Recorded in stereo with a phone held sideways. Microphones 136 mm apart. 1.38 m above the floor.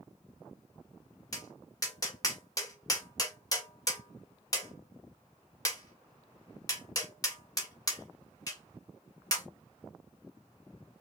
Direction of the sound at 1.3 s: 30° left (ahead or behind).